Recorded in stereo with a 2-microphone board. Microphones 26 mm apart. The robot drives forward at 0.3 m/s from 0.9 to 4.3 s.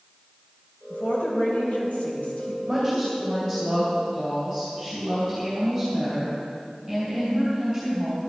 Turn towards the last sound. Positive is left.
turn(degrees=-5)  # may be behind; listen again after turning